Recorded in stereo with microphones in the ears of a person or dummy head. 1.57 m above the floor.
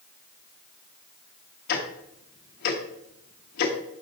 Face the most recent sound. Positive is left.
turn(degrees=40)  # may be behind; listen again after turning